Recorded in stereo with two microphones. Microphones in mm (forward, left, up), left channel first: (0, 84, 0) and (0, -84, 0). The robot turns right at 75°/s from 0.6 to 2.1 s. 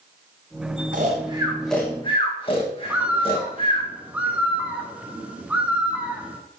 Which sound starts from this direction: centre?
A bird, at 2.9 s.